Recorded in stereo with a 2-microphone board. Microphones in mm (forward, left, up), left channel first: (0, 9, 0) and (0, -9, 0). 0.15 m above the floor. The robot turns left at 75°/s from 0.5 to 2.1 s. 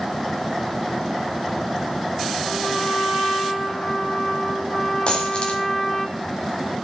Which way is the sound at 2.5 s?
60° left (ahead or behind).